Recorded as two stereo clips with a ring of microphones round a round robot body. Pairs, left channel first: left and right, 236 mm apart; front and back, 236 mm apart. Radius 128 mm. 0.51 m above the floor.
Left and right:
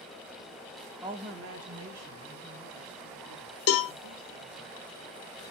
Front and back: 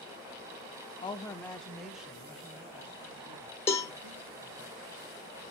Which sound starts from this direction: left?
A cowbell, at 3.7 s.